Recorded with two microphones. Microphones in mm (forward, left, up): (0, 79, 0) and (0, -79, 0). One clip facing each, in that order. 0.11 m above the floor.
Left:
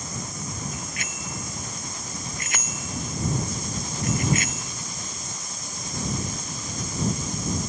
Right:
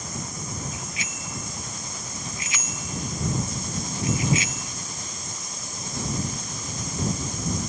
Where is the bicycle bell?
60° left (ahead or behind); by 4.7 s 55° left (ahead or behind).